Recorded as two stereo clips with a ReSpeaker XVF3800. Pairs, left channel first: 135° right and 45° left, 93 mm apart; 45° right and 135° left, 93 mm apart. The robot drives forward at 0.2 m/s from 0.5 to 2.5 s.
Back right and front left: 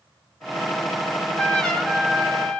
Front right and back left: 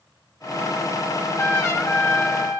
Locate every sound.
1.1 s a trumpet: 50° right, 1.0 m; by 2.6 s 80° right, 0.9 m